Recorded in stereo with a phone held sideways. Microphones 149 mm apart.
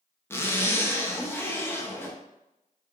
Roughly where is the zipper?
Centre.